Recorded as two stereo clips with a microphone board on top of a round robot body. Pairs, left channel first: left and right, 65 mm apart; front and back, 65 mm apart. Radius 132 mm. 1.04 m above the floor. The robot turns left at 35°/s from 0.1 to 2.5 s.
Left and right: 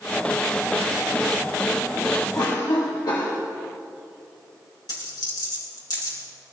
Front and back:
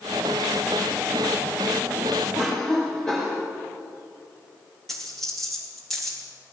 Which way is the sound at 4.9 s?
85° left.